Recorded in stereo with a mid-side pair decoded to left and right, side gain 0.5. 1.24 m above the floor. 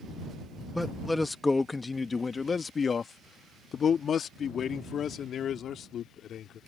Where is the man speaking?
5° left; by 6.6 s 60° left.